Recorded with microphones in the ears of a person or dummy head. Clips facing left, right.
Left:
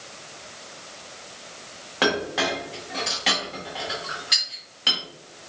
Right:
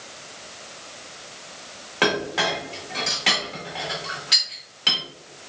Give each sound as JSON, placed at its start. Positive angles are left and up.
{"t": 2.0, "sound": "a clink", "side_deg": 0, "distance_m": 1.2}